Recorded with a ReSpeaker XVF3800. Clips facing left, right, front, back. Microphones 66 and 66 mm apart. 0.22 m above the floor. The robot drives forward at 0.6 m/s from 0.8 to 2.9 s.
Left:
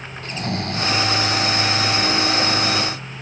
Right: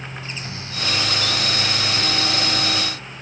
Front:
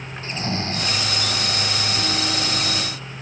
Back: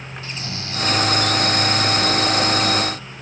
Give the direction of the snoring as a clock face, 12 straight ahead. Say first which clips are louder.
Left 7 dB, front 7 dB; 10 o'clock.